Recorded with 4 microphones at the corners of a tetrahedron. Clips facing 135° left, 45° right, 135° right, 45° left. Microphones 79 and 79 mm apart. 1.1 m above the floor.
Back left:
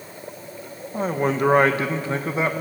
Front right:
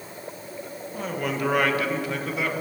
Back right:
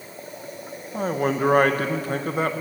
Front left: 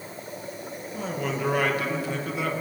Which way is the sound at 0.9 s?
170° right.